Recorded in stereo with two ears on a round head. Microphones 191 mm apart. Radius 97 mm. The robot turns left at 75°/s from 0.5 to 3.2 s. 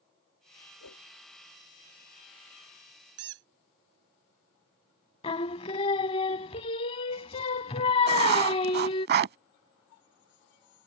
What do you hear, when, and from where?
0.8 s a whoosh: 85° left; by 1.1 s 65° left (ahead or behind)
3.2 s a squeak: 65° right (ahead or behind); by 3.5 s 60° right (ahead or behind)
5.2 s singing: 25° left (ahead or behind)
8.1 s writing: 50° right (ahead or behind)